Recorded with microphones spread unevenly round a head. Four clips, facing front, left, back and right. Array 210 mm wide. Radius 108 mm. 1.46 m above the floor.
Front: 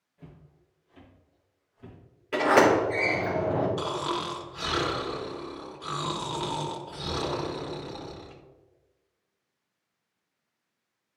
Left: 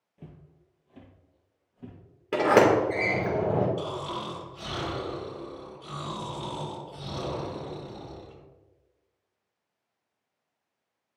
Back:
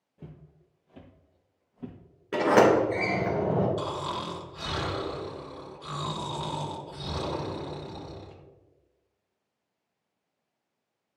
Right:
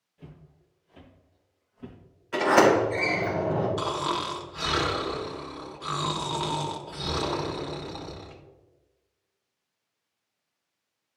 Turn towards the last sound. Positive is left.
turn(degrees=-55)